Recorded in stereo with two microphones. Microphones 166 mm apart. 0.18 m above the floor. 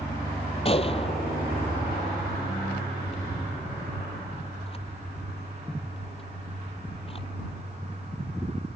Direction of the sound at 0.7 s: 35° left (ahead or behind).